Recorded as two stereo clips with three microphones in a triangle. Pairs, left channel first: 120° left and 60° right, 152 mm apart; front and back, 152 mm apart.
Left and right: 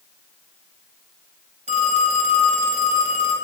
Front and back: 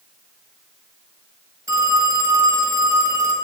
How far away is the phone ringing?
About 1.2 m.